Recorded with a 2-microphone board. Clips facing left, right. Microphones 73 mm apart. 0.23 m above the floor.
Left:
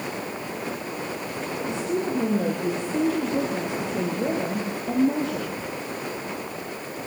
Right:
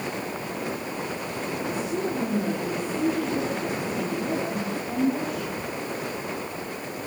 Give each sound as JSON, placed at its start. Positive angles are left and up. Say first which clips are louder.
{"t": 1.7, "sound": "a woman speaking", "louder": "left 3 dB", "side_deg": 80, "distance_m": 8.0}